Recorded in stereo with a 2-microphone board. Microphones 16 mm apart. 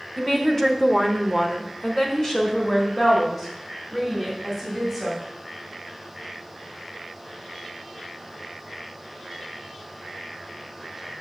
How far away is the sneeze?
No sneeze in this recording.